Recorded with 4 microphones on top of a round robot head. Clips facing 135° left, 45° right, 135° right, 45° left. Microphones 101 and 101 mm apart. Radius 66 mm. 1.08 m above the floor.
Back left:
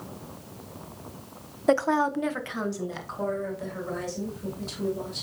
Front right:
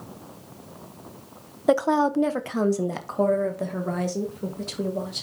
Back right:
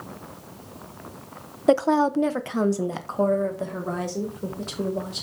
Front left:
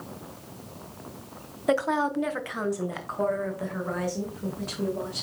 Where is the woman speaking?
120° right, 0.6 m; by 5.2 s 70° right, 2.5 m.